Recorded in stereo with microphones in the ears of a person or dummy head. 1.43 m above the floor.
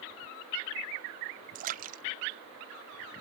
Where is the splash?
50° right (ahead or behind).